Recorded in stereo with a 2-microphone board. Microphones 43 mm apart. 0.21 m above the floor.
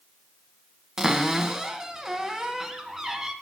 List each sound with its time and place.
1.0 s a cupboard door: 10° right (ahead or behind), 1.1 m